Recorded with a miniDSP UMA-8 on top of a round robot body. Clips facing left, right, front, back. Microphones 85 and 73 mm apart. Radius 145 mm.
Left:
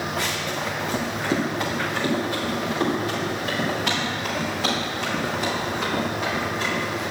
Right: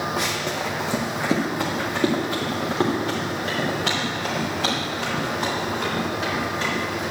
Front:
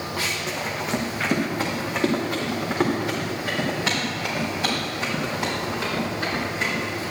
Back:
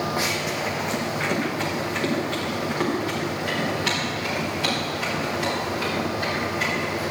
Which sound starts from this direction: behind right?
Running footsteps, at 0.2 s.